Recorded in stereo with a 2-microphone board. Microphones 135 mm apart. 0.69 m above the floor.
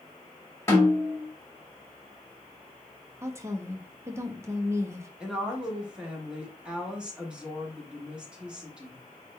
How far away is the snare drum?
About 1.5 m.